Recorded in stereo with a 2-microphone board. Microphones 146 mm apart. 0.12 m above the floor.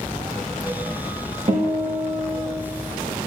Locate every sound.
1.5 s a guitar: 40° right (ahead or behind), 5.5 m